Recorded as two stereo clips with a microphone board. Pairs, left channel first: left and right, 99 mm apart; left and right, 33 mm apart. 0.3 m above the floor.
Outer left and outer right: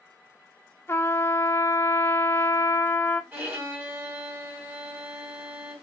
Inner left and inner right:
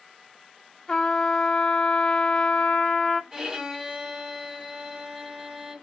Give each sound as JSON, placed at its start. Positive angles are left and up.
{"t": 0.9, "sound": "a trumpet", "side_deg": 25, "distance_m": 0.5}
{"t": 3.3, "sound": "a violin", "side_deg": -20, "distance_m": 1.8}